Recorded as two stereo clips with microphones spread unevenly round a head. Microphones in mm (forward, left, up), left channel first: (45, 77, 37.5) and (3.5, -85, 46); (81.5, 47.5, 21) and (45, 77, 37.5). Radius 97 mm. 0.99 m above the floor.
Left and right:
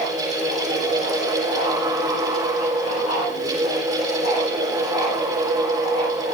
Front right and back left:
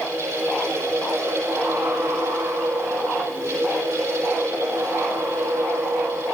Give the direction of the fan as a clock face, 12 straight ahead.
6 o'clock.